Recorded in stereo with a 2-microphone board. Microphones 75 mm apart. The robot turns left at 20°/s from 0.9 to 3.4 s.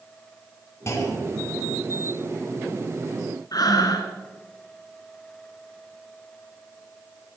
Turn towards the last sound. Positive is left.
turn(degrees=60)  # may be behind; listen again after turning